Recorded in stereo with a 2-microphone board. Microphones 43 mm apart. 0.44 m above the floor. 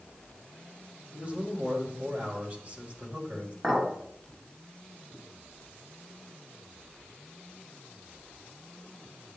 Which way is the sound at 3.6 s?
20° right (ahead or behind).